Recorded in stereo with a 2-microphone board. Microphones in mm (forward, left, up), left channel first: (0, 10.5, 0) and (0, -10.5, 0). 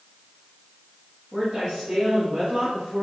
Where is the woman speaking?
25° right (ahead or behind), 1.9 m; by 3.0 s 35° right (ahead or behind), 2.5 m.